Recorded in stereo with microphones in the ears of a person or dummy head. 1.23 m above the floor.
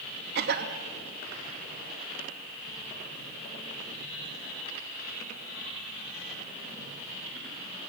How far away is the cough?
About 2.5 m.